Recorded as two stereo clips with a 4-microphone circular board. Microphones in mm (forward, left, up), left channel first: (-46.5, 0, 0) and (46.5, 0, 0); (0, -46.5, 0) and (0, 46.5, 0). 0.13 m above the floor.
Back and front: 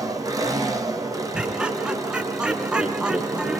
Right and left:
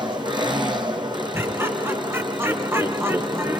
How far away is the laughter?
About 1.6 m.